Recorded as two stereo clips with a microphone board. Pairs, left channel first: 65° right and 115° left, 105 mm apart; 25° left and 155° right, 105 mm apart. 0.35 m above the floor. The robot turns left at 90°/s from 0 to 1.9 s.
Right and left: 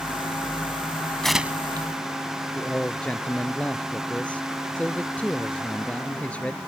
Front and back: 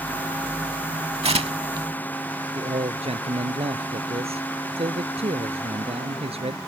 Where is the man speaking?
145° right.